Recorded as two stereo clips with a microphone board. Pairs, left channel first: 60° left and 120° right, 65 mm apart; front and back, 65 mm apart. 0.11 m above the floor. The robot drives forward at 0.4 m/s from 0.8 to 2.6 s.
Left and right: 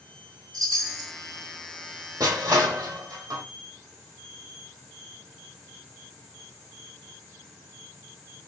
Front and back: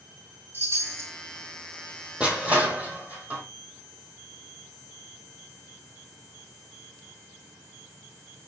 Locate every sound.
0.5 s a chime: 130° right, 2.5 m; by 1.1 s 135° right, 2.5 m
2.2 s crushing: 110° right, 1.3 m; by 3.4 s 115° right, 1.4 m